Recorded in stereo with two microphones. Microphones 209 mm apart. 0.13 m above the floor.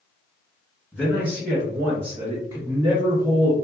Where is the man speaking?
5° right (ahead or behind), 1.7 m; by 3.5 s 15° right (ahead or behind), 1.9 m.